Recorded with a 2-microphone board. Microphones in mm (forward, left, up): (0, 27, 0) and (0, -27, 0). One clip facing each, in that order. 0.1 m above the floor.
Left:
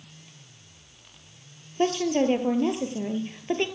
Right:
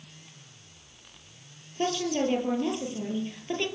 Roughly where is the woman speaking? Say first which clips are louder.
Left 4 dB; left.